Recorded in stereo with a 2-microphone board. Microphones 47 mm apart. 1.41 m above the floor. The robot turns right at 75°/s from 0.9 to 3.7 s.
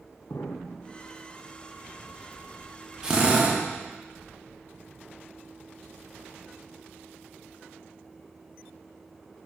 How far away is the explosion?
About 0.6 m.